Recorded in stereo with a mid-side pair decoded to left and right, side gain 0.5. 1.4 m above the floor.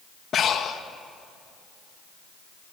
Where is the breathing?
50° left, 2 m.